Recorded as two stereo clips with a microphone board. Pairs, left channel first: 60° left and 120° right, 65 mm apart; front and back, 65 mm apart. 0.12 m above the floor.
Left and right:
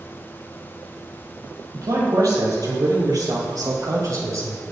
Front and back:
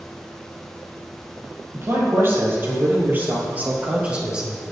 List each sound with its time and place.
1.7 s a man speaking: 135° right, 4 m; by 4.6 s 105° right, 2.5 m